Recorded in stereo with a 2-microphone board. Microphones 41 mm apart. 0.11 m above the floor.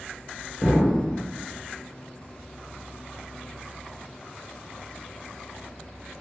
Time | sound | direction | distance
0.6 | an explosion | 45° left (ahead or behind) | 1.2 m